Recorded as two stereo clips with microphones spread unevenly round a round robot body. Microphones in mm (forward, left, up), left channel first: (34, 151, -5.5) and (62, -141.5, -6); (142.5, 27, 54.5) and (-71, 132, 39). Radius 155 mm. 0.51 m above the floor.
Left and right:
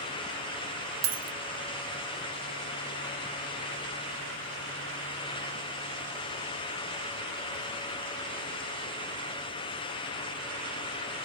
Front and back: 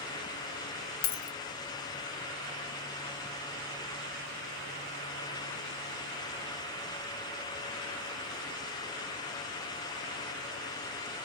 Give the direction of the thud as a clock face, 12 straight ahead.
No thud in this recording.